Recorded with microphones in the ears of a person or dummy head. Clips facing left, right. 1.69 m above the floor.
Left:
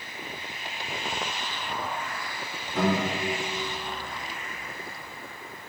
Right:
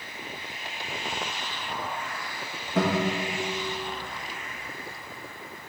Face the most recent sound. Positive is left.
turn(degrees=-55)  # may be behind; listen again after turning